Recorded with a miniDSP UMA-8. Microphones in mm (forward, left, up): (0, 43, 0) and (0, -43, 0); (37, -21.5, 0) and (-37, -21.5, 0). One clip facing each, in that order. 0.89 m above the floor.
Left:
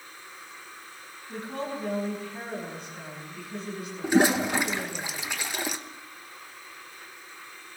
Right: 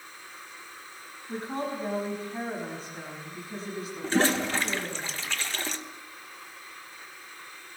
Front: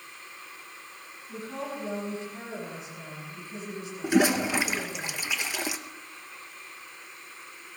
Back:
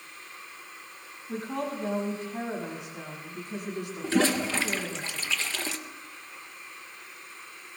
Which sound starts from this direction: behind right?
A woman speaking, at 1.3 s.